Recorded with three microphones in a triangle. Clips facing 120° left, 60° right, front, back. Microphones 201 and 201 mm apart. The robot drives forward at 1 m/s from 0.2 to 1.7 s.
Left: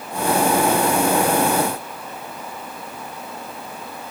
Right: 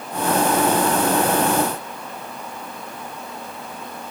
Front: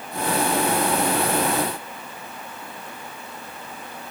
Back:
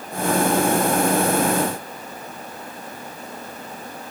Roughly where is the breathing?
No breathing in this recording.